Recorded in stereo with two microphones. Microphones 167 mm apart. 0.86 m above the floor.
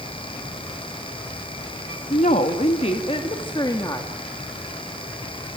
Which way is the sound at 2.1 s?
50° left (ahead or behind).